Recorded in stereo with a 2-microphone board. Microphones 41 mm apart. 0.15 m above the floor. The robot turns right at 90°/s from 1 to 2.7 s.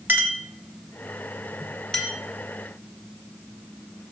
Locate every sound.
0.1 s a clink: 45° right (ahead or behind), 1.5 m; by 2.1 s 30° left (ahead or behind), 1.5 m